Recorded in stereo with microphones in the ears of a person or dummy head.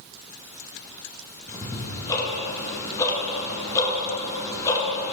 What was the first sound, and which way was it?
Ticking, 20° left (ahead or behind).